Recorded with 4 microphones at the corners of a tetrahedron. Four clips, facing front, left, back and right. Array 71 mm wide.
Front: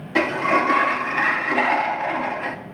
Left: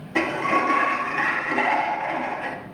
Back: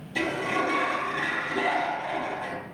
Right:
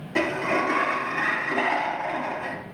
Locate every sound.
0.1 s a sliding door: 5° left, 2 m